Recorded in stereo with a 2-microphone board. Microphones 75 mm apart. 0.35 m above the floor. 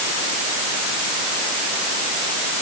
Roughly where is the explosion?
No explosion in this recording.